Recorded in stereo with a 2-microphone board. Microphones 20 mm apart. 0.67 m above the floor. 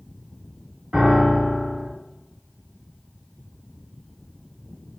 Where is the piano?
50° right (ahead or behind), 3 m.